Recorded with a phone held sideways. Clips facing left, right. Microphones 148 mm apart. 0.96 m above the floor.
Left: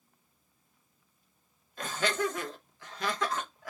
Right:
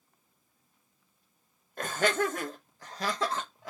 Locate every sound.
1.8 s laughter: 55° right (ahead or behind), 1.1 m; by 3.7 s 20° right (ahead or behind), 1.1 m